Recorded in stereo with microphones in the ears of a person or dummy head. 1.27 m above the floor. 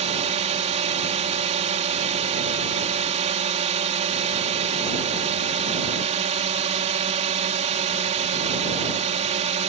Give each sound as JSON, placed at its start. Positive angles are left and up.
{"t": 0.0, "sound": "a drone", "side_deg": -35}